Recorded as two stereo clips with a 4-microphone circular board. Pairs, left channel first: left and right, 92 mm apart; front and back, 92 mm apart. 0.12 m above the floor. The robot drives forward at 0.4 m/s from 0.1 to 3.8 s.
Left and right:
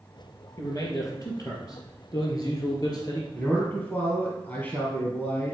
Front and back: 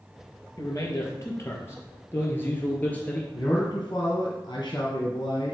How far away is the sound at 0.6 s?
About 2.5 m.